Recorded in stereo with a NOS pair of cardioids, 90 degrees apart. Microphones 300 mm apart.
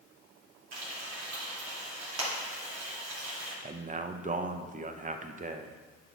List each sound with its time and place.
0.7 s frying: 60° right, 3.5 m
3.6 s a man speaking: 25° right, 0.9 m